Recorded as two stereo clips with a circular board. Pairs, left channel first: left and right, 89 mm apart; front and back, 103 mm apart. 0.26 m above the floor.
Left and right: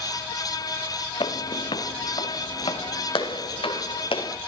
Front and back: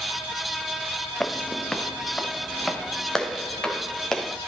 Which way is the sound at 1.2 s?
80° left.